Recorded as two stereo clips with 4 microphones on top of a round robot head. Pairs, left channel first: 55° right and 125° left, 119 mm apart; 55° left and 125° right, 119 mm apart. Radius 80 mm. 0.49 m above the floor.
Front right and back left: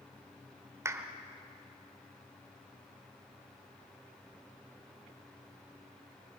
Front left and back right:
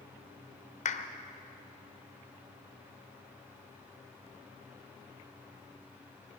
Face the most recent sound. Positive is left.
turn(degrees=60)